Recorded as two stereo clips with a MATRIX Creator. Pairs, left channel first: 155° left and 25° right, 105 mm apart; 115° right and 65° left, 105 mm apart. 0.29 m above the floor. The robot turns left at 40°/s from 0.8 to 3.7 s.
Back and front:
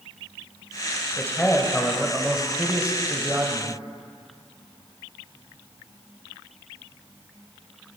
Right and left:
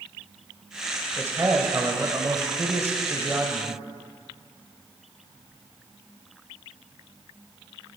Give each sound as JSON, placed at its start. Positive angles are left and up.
{"t": 1.2, "sound": "a man speaking", "azimuth_deg": 105, "distance_m": 1.2}